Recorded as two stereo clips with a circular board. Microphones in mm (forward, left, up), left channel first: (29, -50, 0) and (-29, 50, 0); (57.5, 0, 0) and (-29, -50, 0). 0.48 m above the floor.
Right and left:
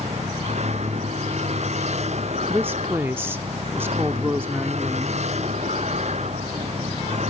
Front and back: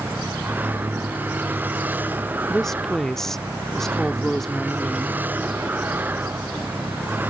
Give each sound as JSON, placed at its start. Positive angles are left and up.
{"t": 0.0, "sound": "a vehicle", "azimuth_deg": 140}
{"t": 2.5, "sound": "a woman speaking", "azimuth_deg": 105}